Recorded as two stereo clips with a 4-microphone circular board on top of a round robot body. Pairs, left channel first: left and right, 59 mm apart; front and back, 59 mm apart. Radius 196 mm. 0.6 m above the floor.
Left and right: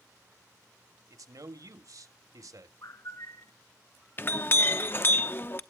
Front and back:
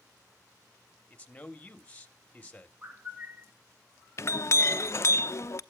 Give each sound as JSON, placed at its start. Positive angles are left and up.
{"t": 1.1, "sound": "a man speaking", "azimuth_deg": -70, "distance_m": 1.7}
{"t": 2.8, "sound": "a bird", "azimuth_deg": 110, "distance_m": 1.5}
{"t": 4.2, "sound": "a clink", "azimuth_deg": 40, "distance_m": 0.8}